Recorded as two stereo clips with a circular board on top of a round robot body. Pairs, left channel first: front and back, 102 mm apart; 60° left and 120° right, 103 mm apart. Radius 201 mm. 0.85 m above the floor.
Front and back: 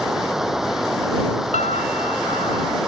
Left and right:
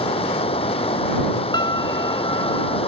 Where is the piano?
10° left.